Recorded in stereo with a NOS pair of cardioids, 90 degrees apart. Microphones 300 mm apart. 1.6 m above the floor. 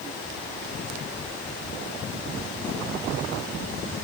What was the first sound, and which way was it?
Only background noise.